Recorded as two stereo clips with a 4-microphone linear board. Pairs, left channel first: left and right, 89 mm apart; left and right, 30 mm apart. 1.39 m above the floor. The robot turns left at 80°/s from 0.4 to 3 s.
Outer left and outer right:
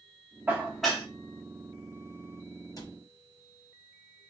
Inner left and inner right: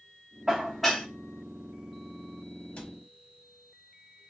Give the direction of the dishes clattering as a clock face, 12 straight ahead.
5 o'clock.